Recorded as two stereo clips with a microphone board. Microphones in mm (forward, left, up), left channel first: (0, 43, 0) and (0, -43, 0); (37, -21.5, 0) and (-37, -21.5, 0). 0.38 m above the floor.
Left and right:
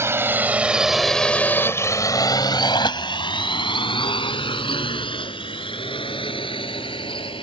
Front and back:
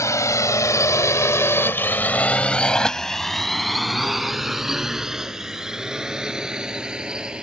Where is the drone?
35° right; by 7.4 s 100° left.